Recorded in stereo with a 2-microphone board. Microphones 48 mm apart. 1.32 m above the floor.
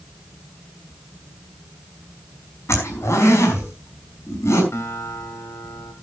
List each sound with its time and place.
2.7 s a zipper: 65° left (ahead or behind), 5 m
4.7 s a guitar: 70° left (ahead or behind), 3 m